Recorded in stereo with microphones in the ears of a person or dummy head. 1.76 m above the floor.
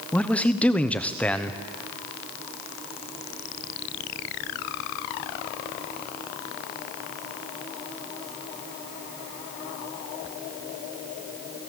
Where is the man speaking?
5° left (ahead or behind), 1.1 m.